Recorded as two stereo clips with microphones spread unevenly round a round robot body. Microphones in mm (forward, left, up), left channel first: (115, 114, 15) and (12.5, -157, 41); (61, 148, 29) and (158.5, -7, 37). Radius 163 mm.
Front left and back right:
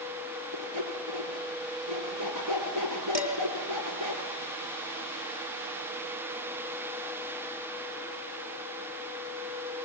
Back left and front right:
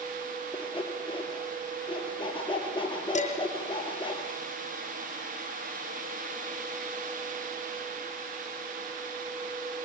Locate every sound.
0.5 s sawing: 155° right, 5.5 m
3.1 s dishes clattering: 175° right, 2.5 m